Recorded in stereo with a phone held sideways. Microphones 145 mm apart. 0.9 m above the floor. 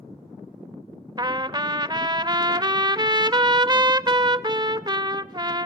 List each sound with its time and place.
1.2 s a trumpet: 30° right (ahead or behind), 0.6 m